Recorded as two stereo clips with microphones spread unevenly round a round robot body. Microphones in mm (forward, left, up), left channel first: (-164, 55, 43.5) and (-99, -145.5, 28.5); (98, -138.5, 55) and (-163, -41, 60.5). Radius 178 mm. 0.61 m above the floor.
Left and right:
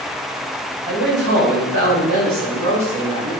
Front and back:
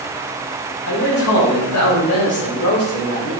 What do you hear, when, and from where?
0.9 s a man speaking: 25° right, 2.5 m; by 3.3 s 60° right, 3.5 m